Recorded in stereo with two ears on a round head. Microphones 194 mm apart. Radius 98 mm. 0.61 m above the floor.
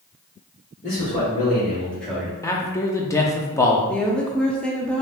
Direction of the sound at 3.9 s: 5° left (ahead or behind).